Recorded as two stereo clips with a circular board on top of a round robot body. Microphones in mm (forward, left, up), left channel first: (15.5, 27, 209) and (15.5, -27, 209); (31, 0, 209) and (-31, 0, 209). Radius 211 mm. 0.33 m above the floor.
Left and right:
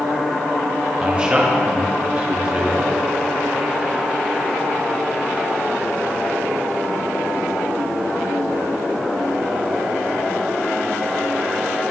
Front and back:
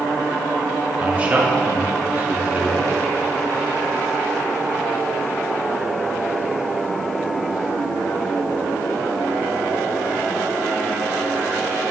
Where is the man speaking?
135° right, 1.2 m.